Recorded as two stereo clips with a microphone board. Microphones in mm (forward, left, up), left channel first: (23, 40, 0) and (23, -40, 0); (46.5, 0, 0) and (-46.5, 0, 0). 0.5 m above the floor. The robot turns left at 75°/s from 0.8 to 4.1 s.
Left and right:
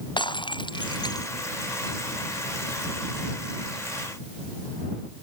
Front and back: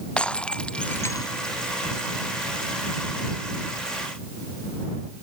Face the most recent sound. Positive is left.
turn(degrees=-170)